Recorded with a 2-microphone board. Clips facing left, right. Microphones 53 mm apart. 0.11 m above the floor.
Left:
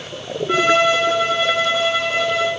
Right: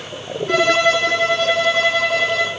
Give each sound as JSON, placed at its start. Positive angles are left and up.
{"t": 0.5, "sound": "a violin", "side_deg": -80, "distance_m": 0.8}